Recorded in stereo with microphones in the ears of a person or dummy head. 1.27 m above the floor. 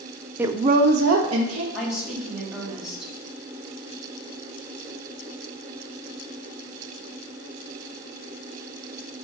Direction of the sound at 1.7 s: Centre (ahead or behind).